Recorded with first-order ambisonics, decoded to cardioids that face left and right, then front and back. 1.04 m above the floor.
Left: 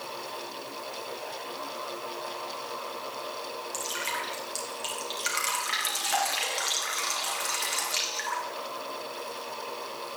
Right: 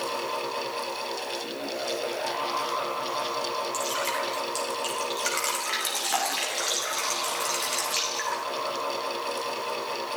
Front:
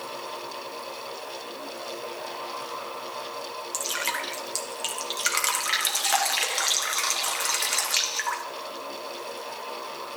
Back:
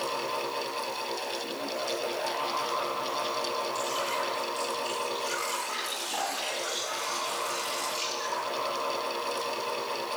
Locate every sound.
3.7 s dripping: straight ahead, 2.5 m